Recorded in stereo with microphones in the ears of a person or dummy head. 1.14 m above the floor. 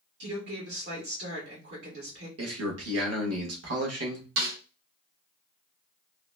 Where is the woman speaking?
55° right (ahead or behind), 1.5 m.